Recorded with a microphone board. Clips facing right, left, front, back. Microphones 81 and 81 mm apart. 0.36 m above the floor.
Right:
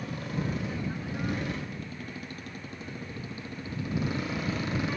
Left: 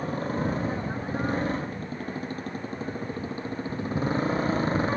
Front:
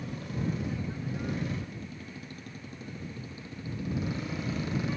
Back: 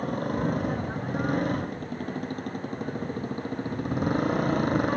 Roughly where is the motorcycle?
Behind left.